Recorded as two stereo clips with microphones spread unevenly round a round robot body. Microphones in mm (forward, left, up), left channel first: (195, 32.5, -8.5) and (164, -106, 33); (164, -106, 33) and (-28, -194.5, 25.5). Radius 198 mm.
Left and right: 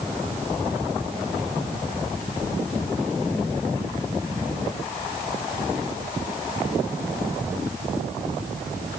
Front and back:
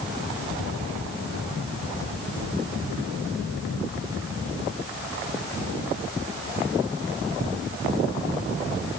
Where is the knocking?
No knocking in this recording.